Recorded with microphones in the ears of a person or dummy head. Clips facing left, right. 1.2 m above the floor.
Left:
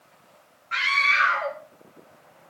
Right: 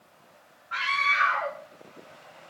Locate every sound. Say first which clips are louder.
0.7 s a scream: left 2 dB; 25° left (ahead or behind), 2 m